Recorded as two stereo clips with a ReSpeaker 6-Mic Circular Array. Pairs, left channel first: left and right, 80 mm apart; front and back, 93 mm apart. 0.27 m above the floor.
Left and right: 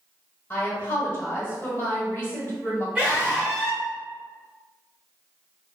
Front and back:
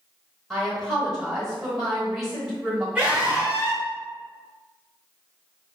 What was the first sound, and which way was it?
A woman speaking, 85° left.